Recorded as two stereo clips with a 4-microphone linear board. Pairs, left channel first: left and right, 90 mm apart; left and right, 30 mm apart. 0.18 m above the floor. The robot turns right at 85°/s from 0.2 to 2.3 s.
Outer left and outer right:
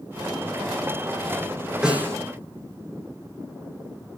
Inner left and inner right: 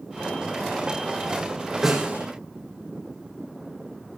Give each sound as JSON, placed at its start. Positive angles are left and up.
{"t": 1.8, "sound": "a snare drum", "azimuth_deg": -175, "distance_m": 9.5}